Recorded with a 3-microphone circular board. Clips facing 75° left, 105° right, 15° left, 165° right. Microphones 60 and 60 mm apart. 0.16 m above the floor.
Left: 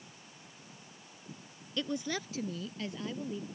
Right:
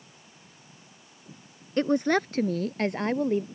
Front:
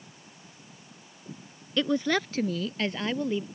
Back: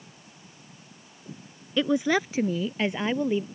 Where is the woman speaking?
90° right; by 3.4 s 95° right.